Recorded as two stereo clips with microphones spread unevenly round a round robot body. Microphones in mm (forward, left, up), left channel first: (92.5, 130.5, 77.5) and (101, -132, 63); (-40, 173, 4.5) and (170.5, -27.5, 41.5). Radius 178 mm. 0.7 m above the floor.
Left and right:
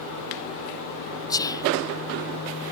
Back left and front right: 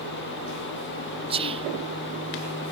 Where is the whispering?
20° left, 0.6 m.